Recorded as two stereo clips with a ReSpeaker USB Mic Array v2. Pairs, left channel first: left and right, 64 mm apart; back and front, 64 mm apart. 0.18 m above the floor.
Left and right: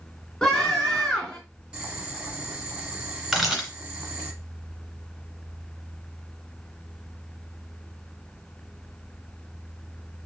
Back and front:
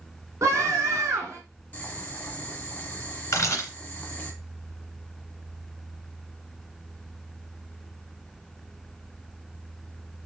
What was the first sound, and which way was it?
A scream, 10° left.